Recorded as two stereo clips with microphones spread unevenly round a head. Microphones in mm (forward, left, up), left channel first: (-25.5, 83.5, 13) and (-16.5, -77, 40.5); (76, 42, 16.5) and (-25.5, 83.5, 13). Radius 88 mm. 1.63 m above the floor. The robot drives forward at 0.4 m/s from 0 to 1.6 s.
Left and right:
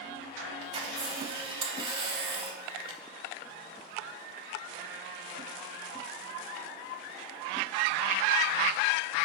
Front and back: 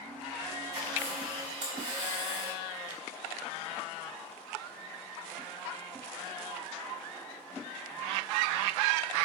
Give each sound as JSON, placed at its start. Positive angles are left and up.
{"t": 0.6, "sound": "a camera shutter", "azimuth_deg": -130, "distance_m": 3.0}